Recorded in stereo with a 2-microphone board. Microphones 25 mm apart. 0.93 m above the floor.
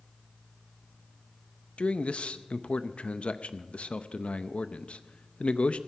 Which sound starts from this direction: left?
A man speaking, at 1.8 s.